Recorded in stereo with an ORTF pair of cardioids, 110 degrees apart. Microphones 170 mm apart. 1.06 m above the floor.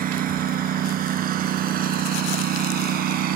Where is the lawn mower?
60° right; by 3.4 s 70° right.